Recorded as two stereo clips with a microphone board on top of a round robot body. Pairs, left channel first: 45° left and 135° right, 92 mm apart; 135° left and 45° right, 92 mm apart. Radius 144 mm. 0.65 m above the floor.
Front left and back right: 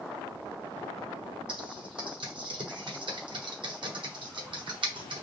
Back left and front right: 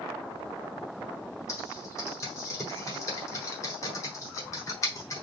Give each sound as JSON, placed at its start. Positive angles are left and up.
{"t": 1.5, "sound": "typing on a keyboard", "azimuth_deg": -170, "distance_m": 1.3}